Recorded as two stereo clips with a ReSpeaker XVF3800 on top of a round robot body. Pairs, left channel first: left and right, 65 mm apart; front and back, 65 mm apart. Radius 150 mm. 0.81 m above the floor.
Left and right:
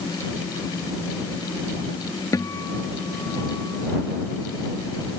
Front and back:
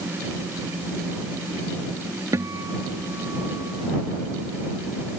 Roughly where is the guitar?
Behind left.